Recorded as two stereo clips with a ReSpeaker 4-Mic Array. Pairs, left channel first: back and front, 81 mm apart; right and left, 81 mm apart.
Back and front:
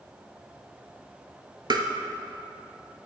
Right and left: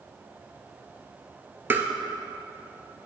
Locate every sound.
1.7 s tapping: 25° left, 0.6 m